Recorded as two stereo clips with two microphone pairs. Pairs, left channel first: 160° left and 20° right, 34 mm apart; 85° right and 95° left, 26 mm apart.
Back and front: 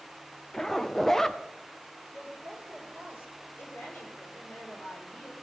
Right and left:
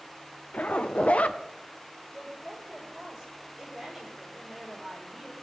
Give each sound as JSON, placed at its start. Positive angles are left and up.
{"t": 0.5, "sound": "a zipper", "azimuth_deg": -125, "distance_m": 0.6}
{"t": 2.1, "sound": "a woman speaking", "azimuth_deg": 170, "distance_m": 4.5}